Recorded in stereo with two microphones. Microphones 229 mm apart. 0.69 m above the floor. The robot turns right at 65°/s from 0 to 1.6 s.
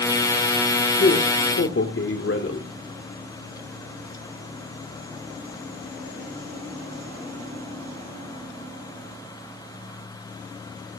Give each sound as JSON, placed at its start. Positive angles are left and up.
{"t": 1.0, "sound": "a man speaking", "azimuth_deg": 55, "distance_m": 1.8}